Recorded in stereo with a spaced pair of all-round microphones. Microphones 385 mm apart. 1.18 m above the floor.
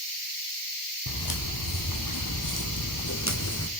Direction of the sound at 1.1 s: 65° left (ahead or behind).